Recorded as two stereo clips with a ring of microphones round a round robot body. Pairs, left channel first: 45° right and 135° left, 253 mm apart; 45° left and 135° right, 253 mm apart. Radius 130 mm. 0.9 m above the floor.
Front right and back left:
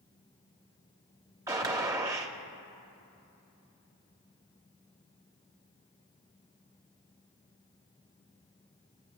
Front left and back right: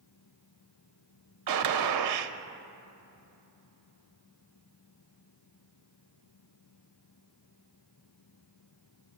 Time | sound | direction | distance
1.5 | a gunshot | 150° right | 0.6 m